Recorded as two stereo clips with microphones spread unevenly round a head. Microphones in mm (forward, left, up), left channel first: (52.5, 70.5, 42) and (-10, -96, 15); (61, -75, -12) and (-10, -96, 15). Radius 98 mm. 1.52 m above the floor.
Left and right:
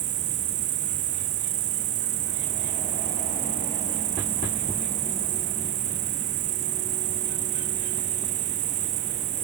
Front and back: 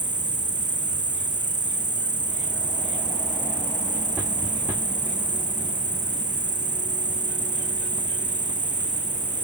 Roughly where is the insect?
Behind right.